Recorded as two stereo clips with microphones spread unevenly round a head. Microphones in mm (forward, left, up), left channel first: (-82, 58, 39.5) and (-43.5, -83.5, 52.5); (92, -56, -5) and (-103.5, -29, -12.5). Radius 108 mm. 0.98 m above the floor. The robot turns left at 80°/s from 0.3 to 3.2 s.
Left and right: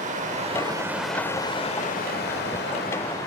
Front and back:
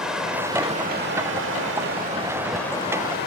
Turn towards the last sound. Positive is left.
turn(degrees=30)